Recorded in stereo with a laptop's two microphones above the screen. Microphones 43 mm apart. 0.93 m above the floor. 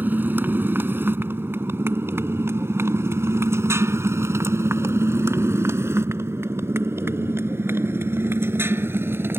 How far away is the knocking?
No knocking in this recording.